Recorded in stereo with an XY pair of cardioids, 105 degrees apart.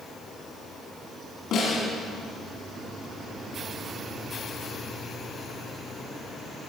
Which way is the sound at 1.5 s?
70° left.